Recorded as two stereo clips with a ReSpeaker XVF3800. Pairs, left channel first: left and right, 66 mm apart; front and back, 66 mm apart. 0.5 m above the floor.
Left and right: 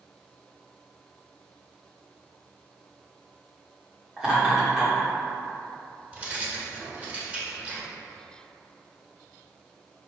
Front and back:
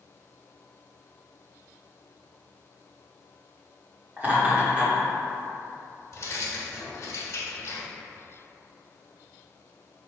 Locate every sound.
4.2 s laughter: 155° right, 1.5 m
6.1 s keys jangling: 25° right, 1.3 m